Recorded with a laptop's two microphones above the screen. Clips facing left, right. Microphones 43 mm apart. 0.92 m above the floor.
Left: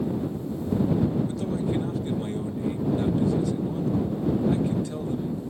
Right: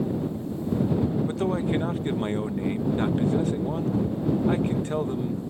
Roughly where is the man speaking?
Right.